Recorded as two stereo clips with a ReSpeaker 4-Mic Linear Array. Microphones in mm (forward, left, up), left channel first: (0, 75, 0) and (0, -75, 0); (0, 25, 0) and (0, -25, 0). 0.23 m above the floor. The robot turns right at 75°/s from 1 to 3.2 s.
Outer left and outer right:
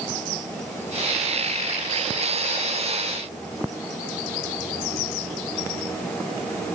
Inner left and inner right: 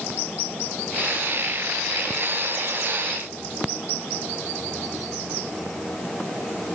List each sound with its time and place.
Only background noise.